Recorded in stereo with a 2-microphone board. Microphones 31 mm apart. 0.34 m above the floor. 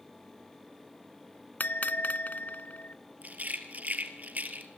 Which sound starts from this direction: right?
A rattle, at 3.2 s.